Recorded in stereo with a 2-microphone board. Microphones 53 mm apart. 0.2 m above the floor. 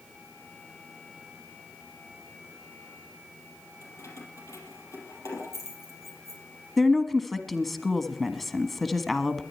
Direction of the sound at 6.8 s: 5° left (ahead or behind).